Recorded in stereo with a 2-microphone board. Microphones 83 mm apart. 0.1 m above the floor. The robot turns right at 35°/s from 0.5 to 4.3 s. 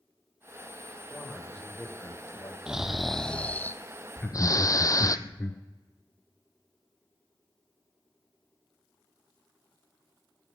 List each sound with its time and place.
1.1 s a man speaking: 5° right, 5 m; by 2.6 s 45° left, 5 m
2.7 s snoring: 10° right, 0.7 m; by 5.2 s 45° left, 0.7 m
4.2 s laughter: 25° left (ahead or behind), 1.4 m; by 5.6 s 20° left (ahead or behind), 1.4 m